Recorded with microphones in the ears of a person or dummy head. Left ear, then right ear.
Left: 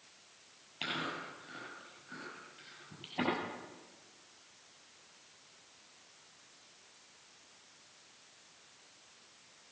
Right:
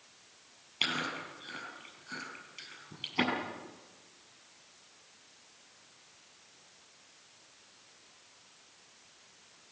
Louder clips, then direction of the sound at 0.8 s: Right 5 dB; 25° right (ahead or behind).